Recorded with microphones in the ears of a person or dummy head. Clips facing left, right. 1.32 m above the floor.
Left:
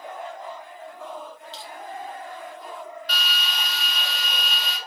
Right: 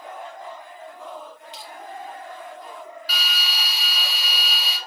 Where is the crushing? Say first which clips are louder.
Left 1 dB; 15° right (ahead or behind), 1.9 m.